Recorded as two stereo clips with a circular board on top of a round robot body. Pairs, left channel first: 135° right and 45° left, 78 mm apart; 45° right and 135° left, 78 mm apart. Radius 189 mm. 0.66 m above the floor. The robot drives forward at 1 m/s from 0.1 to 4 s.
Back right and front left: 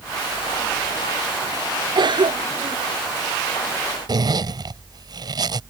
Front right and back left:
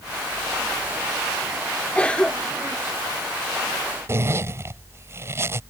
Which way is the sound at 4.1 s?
75° left.